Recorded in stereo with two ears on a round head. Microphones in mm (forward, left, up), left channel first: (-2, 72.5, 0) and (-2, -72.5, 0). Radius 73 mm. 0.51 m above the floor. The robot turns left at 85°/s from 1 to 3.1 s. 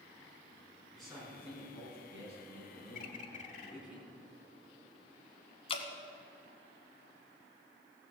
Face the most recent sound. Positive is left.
turn(degrees=35)  # may be behind; listen again after turning